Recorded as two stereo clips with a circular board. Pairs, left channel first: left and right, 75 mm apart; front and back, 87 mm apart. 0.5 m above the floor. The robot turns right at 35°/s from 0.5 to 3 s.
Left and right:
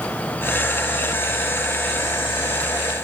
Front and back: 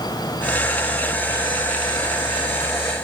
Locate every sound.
Only background noise.